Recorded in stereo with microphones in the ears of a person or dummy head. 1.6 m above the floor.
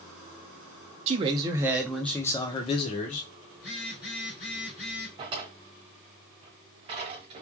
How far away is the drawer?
About 1.4 m.